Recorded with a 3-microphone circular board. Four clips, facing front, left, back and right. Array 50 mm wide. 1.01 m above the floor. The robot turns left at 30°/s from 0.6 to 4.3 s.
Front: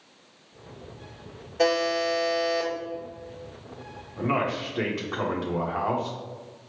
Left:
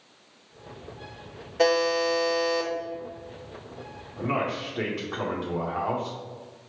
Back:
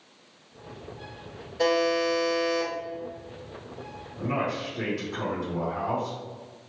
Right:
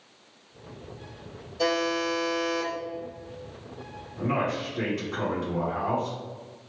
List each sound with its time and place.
1.6 s a buzzer: 70° left, 1.8 m; by 2.7 s 35° left, 1.8 m
4.2 s a man speaking: 30° left, 1.3 m; by 6.2 s 25° left, 1.3 m